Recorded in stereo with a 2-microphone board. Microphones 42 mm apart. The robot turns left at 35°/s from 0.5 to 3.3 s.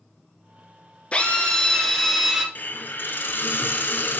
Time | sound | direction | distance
1.1 | a drill | 40° left | 1.4 m
2.5 | a hiss | 50° left (ahead or behind) | 0.9 m